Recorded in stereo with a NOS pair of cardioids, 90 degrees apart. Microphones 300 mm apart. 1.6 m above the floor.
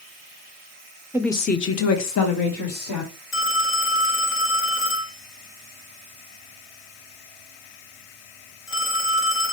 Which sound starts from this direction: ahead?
A woman speaking, at 1.1 s.